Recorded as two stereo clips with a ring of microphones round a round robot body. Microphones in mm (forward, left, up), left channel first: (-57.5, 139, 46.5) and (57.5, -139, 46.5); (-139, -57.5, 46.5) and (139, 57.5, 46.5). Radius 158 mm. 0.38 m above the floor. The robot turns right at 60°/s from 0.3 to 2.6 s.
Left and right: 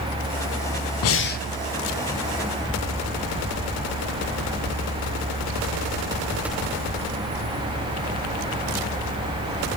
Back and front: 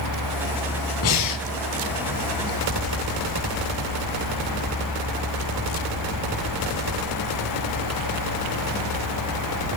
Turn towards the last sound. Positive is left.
turn(degrees=-110)